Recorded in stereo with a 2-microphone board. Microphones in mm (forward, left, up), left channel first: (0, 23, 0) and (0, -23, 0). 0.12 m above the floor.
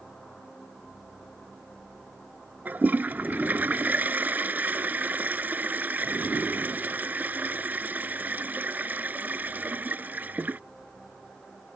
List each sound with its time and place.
2.6 s a toilet flushing: 40° right (ahead or behind)